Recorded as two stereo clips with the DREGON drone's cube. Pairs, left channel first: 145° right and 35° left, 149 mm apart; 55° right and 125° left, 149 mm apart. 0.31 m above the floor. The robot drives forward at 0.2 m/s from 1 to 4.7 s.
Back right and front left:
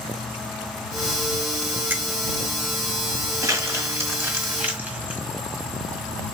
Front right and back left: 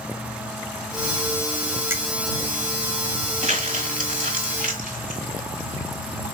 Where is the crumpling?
100° left, 1.2 m; by 5.2 s 115° left, 1.3 m.